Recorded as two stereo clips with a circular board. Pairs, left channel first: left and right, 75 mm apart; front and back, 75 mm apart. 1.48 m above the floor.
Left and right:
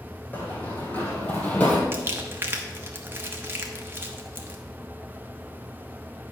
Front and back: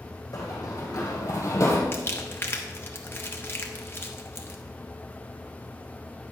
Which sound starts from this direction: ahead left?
Running footsteps, at 0.3 s.